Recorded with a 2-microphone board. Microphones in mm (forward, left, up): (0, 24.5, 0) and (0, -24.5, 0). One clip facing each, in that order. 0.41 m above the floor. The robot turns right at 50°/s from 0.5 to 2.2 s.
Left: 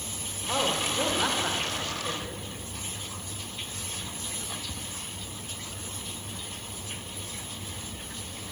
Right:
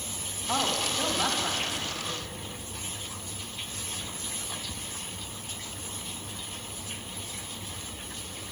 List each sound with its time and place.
0.5 s a woman speaking: 10° left, 1.3 m; by 2.5 s 95° left, 1.3 m